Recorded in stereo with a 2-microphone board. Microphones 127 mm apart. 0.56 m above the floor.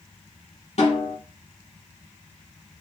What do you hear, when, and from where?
0.8 s a snare drum: 60° left (ahead or behind), 4 m